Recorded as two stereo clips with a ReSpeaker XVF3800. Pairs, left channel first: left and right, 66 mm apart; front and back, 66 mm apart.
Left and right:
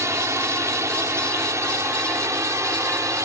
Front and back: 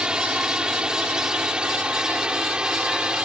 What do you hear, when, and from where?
0.0 s a drone: 110° right